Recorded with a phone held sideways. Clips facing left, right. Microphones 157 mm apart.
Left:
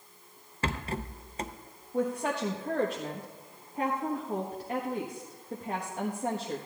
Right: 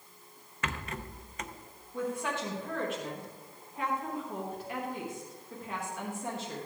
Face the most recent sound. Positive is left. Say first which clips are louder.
# left 4 dB
turn(degrees=40)  # may be behind; listen again after turning